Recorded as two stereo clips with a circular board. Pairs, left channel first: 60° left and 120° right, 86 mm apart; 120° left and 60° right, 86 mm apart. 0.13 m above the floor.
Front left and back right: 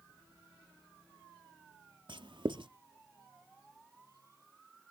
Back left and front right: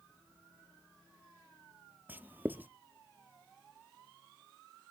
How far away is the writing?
About 0.6 m.